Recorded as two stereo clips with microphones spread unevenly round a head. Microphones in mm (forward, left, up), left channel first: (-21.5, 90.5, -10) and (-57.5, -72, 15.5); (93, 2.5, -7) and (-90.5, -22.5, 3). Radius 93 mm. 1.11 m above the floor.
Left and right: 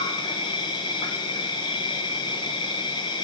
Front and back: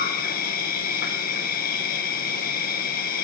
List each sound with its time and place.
0.0 s an insect: 25° left, 0.9 m